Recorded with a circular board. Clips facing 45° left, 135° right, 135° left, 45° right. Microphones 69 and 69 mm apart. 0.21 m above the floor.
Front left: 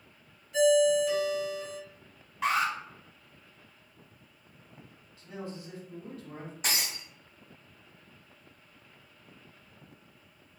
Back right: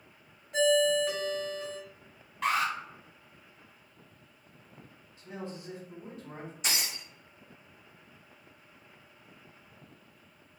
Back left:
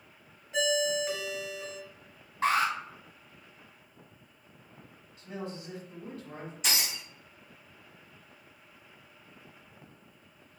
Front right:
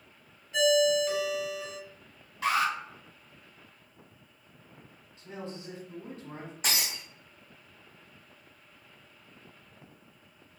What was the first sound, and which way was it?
A ringtone, 155° right.